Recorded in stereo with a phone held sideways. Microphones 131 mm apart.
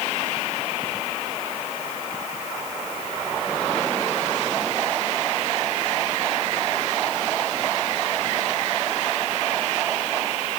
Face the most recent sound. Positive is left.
No sound to turn to.